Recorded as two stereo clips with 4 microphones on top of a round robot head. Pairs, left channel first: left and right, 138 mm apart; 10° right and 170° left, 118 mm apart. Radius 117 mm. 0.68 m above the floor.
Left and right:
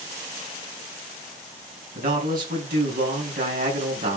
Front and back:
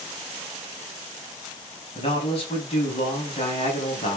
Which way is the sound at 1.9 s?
60° right.